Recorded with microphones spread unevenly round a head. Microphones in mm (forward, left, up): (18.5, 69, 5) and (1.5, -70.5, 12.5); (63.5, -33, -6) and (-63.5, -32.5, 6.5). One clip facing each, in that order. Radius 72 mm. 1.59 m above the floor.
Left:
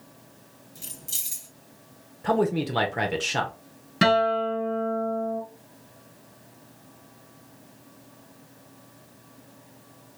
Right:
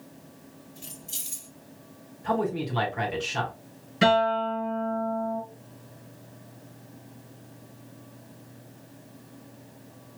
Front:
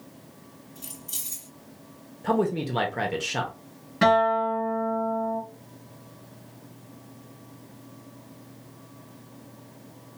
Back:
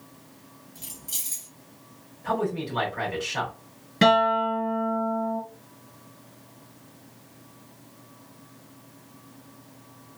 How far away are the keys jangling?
About 3 m.